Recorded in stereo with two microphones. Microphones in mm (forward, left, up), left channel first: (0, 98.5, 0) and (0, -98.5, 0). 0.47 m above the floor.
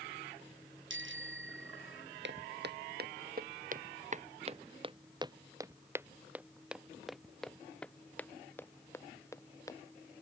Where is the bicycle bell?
75° right (ahead or behind).